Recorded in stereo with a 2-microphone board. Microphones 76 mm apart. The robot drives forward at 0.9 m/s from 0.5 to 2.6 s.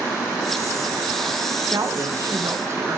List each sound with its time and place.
1.7 s a woman speaking: 55° right (ahead or behind), 1.9 m; by 3.0 s 40° right (ahead or behind), 2.5 m